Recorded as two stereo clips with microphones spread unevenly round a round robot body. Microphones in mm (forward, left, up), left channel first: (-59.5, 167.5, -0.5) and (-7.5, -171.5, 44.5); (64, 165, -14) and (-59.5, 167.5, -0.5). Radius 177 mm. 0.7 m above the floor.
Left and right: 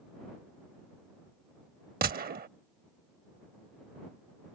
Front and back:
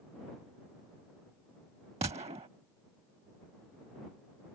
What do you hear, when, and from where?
2.0 s a gunshot: 140° right